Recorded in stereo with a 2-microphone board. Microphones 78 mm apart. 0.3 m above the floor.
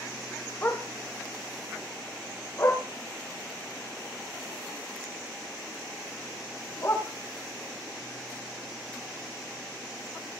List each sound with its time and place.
0.6 s a dog barking: 30° left (ahead or behind), 4 m; by 7.0 s 35° left (ahead or behind), 8 m